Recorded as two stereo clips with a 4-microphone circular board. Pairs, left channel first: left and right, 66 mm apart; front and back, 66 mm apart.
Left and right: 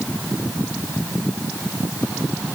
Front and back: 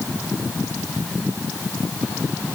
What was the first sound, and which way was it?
Only background noise.